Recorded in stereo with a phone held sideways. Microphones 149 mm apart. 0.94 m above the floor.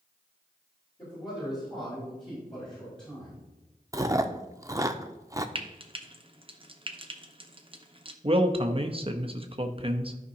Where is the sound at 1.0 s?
35° left (ahead or behind), 4 m; by 3.4 s 30° left (ahead or behind), 5.5 m.